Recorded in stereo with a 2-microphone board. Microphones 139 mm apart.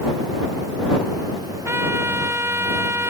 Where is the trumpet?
15° right (ahead or behind).